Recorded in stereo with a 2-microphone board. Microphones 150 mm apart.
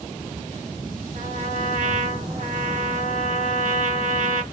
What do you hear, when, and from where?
1.1 s a trumpet: 60° right (ahead or behind), 1.4 m